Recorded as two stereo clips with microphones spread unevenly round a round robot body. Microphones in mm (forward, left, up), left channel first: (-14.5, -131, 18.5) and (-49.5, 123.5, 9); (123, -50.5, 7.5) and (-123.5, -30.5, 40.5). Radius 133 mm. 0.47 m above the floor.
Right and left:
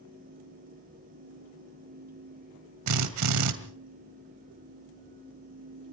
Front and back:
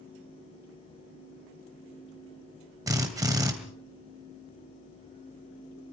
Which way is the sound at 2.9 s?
95° left.